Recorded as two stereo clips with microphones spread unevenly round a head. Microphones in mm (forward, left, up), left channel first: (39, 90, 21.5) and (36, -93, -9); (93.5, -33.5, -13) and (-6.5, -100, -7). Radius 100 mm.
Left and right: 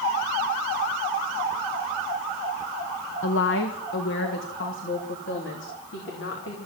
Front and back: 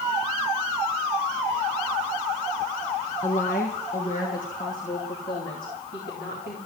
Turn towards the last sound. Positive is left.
turn(degrees=70)